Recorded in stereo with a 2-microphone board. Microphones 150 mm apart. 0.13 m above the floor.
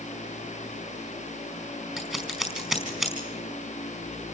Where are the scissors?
5° right (ahead or behind), 4.5 m.